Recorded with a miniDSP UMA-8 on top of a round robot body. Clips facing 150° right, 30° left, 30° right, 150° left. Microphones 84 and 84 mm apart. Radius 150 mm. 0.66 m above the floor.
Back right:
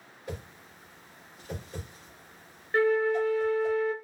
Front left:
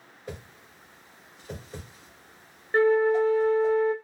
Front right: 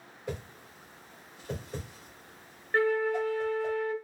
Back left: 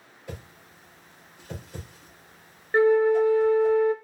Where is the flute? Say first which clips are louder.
Front left 4 dB, back left 8 dB; 80° left, 0.6 m.